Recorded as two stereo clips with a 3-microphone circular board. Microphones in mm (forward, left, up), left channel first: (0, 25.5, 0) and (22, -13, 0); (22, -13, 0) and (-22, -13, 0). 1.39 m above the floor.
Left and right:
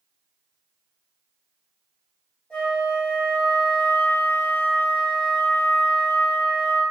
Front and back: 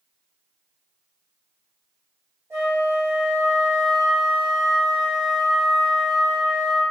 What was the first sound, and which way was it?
A flute, 170° right.